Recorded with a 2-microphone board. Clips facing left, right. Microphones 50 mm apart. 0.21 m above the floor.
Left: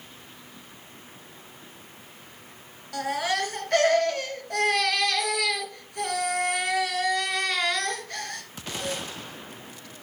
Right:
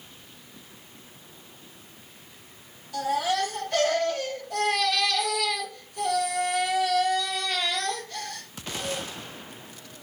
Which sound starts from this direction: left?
A baby crying, at 2.9 s.